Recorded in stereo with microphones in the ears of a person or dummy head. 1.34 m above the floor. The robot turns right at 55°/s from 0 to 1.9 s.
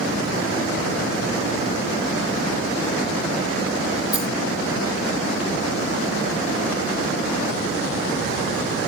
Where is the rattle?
5° right (ahead or behind), 2.5 m.